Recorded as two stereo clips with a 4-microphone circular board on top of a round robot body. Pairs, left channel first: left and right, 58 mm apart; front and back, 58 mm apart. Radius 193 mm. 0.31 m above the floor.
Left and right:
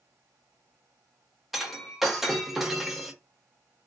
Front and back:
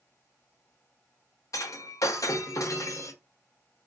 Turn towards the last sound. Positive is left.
turn(degrees=-5)